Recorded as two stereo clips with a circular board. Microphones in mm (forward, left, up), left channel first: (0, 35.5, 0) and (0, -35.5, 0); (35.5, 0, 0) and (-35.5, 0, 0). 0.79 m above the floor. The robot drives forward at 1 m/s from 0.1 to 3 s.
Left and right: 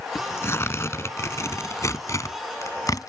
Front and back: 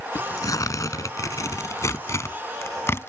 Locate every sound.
0.1 s tearing paper: 35° left; by 3.1 s 55° left